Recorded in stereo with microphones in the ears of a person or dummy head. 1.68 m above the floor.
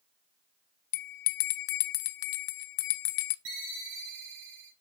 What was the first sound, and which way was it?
A bell, 55° left (ahead or behind).